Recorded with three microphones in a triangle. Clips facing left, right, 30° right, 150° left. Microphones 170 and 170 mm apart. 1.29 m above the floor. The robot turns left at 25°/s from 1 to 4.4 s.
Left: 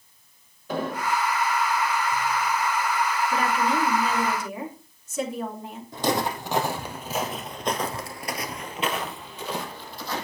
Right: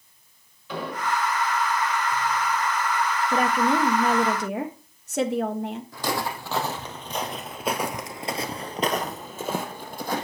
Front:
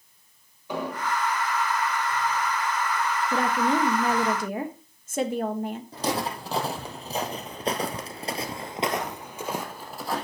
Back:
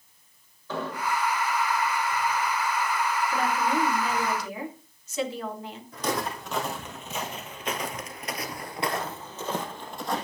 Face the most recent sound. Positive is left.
turn(degrees=-115)